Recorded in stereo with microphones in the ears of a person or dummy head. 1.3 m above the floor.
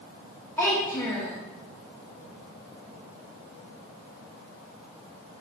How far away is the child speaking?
About 1.2 m.